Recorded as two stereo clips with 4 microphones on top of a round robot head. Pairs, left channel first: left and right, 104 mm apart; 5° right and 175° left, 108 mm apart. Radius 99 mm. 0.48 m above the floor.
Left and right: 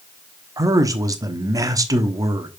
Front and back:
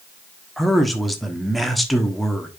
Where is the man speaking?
95° right, 1.2 m.